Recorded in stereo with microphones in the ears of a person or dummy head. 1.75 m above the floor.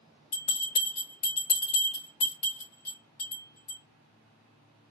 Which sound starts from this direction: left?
A bell, at 0.3 s.